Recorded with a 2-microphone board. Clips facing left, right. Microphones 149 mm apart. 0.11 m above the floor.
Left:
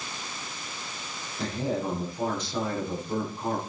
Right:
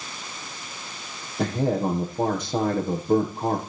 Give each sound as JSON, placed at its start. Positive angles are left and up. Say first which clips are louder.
{"t": 1.4, "sound": "a man speaking", "louder": "right 6 dB", "side_deg": -55, "distance_m": 6.5}